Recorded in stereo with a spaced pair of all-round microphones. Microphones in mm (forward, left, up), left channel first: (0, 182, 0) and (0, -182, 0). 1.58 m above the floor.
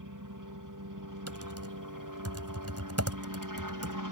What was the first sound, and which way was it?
A helicopter, 60° right (ahead or behind).